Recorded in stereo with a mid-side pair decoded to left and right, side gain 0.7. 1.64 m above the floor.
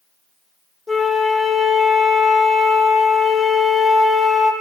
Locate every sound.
0.9 s a flute: 10° left, 1.0 m